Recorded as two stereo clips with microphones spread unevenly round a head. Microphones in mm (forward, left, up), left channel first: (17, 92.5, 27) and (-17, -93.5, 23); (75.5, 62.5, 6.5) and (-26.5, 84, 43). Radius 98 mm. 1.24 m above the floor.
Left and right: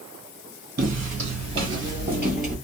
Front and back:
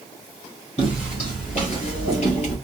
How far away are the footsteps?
About 1.7 m.